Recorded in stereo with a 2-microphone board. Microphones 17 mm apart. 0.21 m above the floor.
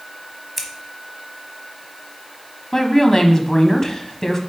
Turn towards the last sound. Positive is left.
turn(degrees=30)  # may be behind; listen again after turning